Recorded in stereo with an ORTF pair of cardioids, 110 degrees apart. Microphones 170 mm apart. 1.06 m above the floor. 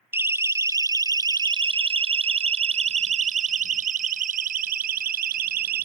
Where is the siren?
15° right; by 5.9 s 65° right.